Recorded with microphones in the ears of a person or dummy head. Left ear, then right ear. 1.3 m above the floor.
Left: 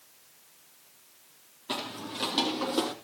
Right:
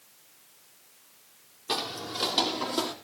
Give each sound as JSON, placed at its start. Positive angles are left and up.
{"t": 1.7, "sound": "footsteps", "side_deg": -10, "distance_m": 2.5}